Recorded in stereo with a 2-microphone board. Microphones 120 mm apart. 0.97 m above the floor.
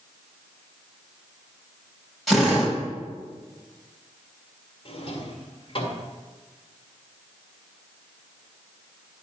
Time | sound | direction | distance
2.3 | a drill | centre (ahead or behind) | 4 m
4.8 | a drawer | 45° left (ahead or behind) | 2.5 m